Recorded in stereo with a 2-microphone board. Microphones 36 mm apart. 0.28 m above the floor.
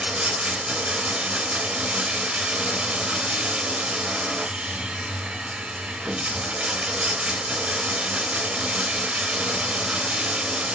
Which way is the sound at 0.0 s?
25° right (ahead or behind).